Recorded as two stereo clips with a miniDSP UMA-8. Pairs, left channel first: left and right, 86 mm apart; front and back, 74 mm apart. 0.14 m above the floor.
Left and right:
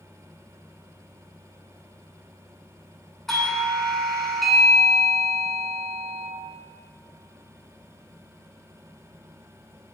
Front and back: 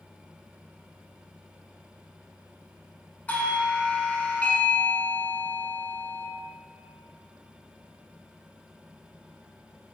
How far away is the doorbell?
About 1.5 m.